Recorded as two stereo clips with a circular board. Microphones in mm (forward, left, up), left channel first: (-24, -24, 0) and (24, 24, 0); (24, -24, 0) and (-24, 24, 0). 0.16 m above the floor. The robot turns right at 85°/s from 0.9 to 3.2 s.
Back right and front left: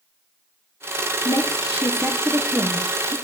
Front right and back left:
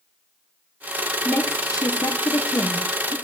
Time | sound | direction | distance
1.2 | a woman speaking | 125° right | 3 m